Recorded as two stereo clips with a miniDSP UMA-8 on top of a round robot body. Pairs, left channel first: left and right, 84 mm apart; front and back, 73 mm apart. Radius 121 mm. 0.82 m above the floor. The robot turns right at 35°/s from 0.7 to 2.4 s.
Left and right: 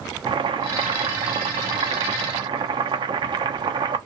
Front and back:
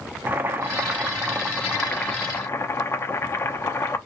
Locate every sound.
0.3 s boiling: 115° right, 0.8 m; by 4.0 s 55° right, 0.8 m